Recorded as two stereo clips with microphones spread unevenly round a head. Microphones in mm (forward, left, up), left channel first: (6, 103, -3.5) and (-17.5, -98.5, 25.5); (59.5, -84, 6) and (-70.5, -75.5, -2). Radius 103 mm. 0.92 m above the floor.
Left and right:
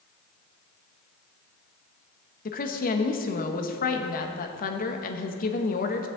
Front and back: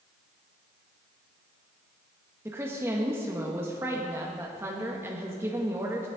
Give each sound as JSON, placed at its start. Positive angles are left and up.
{"t": 2.5, "sound": "a woman speaking", "azimuth_deg": 105, "distance_m": 1.3}